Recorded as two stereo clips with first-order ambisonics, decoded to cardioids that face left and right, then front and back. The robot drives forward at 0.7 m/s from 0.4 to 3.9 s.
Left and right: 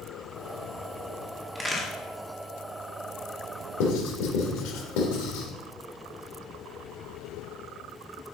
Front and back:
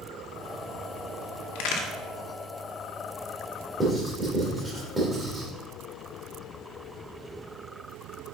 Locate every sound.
1.6 s a crack: 5° right, 1.8 m
3.8 s writing: 100° left, 3 m